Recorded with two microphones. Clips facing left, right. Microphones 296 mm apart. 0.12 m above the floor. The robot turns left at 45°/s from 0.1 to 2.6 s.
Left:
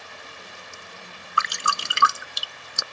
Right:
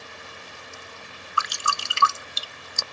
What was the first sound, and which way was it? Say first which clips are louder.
Dripping: left 1 dB; 25° left (ahead or behind).